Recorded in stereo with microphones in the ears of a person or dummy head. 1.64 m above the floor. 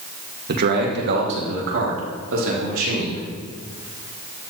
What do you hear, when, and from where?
0.5 s a man speaking: 55° right (ahead or behind), 1.7 m; by 3.2 s 70° right (ahead or behind), 3.5 m